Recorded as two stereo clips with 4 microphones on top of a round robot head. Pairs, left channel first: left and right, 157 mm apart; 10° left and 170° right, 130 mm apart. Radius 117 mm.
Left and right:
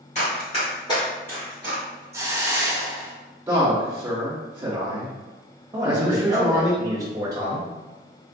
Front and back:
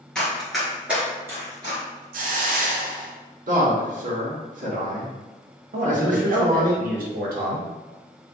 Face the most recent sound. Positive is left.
turn(degrees=-165)